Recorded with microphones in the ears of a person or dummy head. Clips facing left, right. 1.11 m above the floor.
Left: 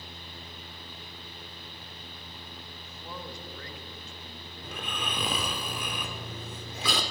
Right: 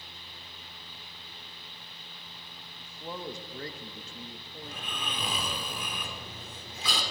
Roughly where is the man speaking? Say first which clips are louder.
Right 5 dB; centre.